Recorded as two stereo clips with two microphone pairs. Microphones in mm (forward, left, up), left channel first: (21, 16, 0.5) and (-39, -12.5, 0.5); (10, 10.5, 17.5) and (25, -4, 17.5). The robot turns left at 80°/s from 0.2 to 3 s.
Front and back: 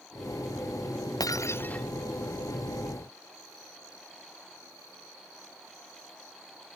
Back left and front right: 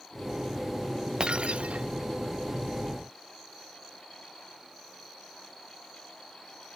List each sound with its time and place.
1.2 s breaking glass: straight ahead; by 1.9 s 50° right